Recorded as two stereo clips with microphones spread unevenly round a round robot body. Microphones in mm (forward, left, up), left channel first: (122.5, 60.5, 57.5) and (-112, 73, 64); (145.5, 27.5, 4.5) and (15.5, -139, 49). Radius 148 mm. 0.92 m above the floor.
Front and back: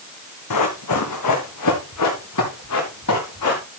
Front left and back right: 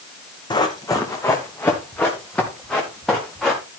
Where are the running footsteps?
20° right, 2.5 m; by 3.6 s 40° right, 5.5 m.